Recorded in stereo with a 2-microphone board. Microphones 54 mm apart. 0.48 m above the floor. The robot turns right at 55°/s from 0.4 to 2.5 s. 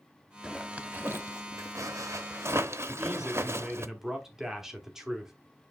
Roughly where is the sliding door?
I don't hear a sliding door.